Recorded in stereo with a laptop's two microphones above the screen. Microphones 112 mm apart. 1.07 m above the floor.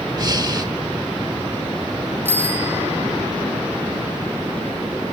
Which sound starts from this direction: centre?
A bicycle bell, at 2.2 s.